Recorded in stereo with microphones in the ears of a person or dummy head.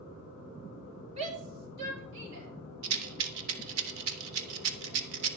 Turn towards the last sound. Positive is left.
turn(degrees=-65)  # may be behind; listen again after turning